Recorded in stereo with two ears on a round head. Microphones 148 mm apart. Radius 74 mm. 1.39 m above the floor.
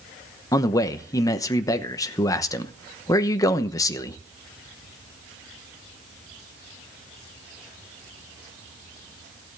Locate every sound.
0.5 s a man speaking: 25° left (ahead or behind), 1.0 m